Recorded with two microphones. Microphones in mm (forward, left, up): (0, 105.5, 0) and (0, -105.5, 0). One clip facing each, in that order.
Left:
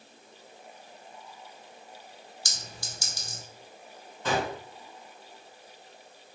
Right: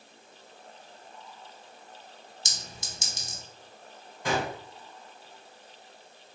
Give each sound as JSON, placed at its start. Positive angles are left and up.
{"t": 2.5, "sound": "a clink", "side_deg": -20, "distance_m": 0.6}
{"t": 4.2, "sound": "a gunshot", "side_deg": -15, "distance_m": 1.8}